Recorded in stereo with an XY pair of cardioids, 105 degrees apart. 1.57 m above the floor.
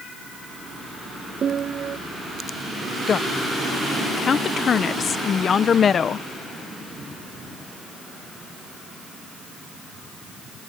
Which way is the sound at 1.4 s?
50° right.